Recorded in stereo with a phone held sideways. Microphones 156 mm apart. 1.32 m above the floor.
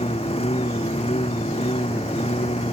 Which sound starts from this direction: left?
A lawn mower, at 0.0 s.